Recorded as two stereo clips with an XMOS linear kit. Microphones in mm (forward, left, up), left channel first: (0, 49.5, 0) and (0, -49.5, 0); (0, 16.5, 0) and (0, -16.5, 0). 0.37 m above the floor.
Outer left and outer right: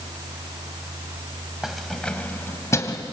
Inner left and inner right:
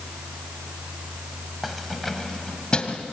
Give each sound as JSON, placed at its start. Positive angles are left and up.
{"t": 1.6, "sound": "keys jangling", "side_deg": -5, "distance_m": 1.6}